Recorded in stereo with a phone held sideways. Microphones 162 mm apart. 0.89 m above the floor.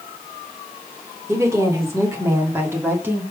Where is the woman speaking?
15° right (ahead or behind), 3 m; by 3.2 s 10° right (ahead or behind), 1.9 m.